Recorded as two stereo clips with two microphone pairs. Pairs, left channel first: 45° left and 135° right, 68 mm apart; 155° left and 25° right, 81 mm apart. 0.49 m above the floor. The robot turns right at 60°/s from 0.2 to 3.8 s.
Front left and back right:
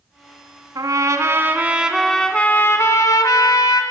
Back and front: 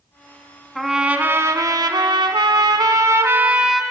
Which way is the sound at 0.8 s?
120° right.